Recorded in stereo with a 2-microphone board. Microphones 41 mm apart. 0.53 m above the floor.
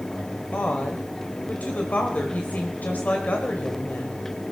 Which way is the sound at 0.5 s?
45° left (ahead or behind).